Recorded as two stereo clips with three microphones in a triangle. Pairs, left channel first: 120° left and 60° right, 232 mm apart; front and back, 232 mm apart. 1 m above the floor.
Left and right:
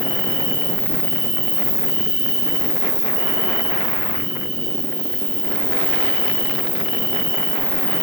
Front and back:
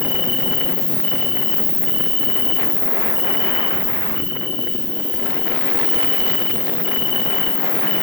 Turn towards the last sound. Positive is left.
turn(degrees=10)